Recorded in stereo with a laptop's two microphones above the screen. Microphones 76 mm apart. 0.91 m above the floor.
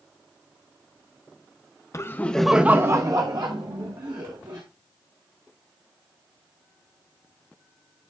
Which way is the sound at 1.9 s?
35° left (ahead or behind).